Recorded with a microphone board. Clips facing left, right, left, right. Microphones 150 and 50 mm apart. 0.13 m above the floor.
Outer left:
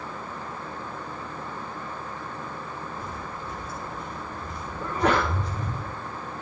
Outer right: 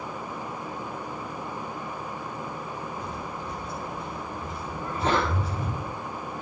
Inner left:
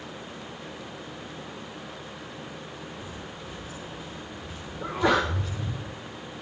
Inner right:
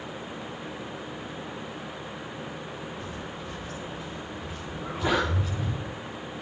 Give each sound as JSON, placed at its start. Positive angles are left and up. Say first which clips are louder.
{"t": 3.0, "sound": "footsteps", "louder": "outer right 1 dB, inner right 3 dB", "side_deg": 5, "distance_m": 8.5}
{"t": 4.8, "sound": "a sneeze", "louder": "outer left 2 dB, inner left 3 dB", "side_deg": 80, "distance_m": 7.5}